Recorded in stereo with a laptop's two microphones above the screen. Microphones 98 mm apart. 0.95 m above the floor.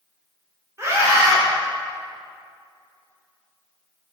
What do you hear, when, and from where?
0.8 s a scream: 30° right (ahead or behind), 3 m